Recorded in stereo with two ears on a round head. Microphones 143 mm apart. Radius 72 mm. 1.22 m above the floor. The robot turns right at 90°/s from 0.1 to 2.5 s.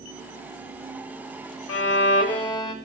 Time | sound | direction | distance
1.7 | a violin | 80° left | 2.0 m